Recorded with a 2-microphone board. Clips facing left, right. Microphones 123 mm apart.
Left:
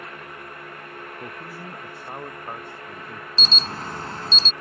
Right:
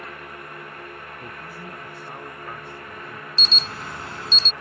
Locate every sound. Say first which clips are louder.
1.2 s a man speaking: left 1 dB; 25° left (ahead or behind); by 3.3 s 30° left (ahead or behind)
3.4 s an alarm: left 4 dB; 35° left (ahead or behind)